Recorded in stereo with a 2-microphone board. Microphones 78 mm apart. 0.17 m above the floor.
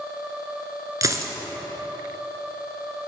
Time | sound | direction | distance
1.0 | a dropped coin | 40° right (ahead or behind) | 0.8 m